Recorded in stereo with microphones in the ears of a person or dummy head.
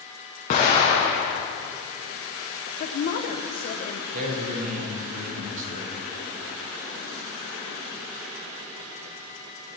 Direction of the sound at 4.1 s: 40° right (ahead or behind).